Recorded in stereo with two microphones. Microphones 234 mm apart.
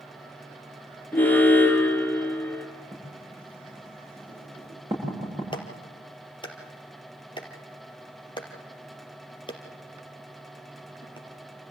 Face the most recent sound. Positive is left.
turn(degrees=20)  # may be behind; listen again after turning